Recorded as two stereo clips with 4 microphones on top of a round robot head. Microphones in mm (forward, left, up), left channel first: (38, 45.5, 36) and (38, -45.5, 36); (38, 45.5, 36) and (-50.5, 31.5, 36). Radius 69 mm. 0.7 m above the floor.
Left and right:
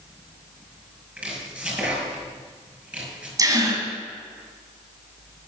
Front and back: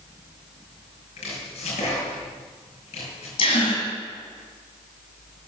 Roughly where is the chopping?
Ahead.